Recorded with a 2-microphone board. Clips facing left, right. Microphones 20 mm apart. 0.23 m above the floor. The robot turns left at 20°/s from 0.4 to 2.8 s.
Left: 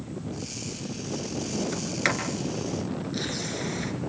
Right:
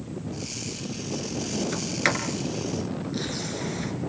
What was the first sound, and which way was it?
A sliding door, 15° right (ahead or behind).